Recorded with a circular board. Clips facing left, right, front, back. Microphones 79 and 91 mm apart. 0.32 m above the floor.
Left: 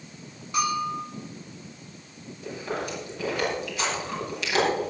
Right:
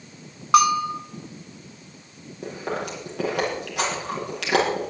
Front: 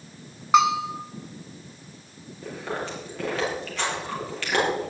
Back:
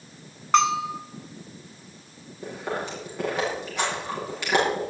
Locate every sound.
0.5 s a bell: 80° right, 1.1 m
2.4 s chewing: 110° right, 7 m